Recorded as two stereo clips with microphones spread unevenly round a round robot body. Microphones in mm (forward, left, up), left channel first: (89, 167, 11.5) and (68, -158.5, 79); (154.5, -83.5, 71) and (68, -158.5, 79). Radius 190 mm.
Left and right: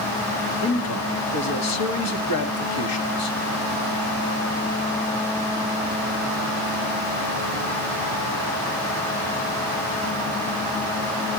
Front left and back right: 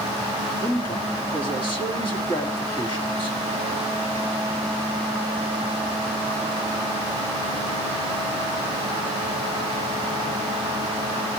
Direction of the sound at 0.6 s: 80° left.